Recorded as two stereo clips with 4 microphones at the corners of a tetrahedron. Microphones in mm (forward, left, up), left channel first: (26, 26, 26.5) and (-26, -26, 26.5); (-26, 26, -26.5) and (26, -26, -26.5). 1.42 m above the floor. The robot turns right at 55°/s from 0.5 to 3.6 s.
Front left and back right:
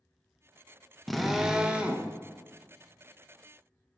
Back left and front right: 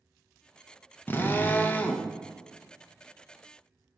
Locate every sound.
1.1 s a drill: 130° left, 0.7 m; by 2.1 s 170° right, 0.7 m